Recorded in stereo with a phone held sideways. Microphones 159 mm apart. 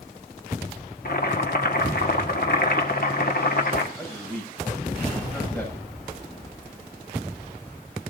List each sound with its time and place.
1.1 s boiling: 65° left (ahead or behind), 1.6 m
4.0 s a man speaking: 10° left (ahead or behind), 7 m